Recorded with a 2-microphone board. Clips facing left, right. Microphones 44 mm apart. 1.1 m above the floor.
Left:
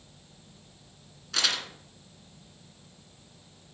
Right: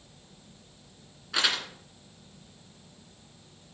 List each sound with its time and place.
1.3 s crumpling: 15° right (ahead or behind), 2.5 m